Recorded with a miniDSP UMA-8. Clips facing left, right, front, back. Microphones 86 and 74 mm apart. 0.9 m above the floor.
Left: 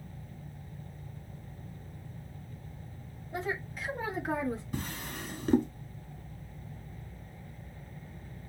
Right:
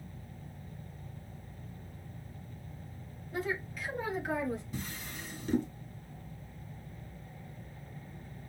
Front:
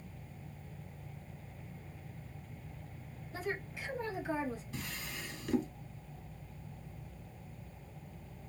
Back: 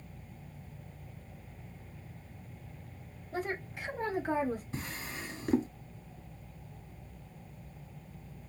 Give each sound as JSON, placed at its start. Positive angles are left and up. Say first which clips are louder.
{"t": 3.3, "sound": "a woman speaking", "louder": "even, back 3 dB", "azimuth_deg": 155, "distance_m": 2.0}
{"t": 4.7, "sound": "a drawer", "louder": "left 4 dB, back 3 dB", "azimuth_deg": 125, "distance_m": 1.1}